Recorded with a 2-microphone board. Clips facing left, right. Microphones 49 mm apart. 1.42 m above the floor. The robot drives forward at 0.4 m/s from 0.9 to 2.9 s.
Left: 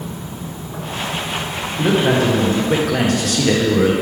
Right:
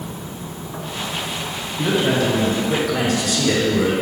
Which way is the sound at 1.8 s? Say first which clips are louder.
Left 3 dB; 40° left (ahead or behind).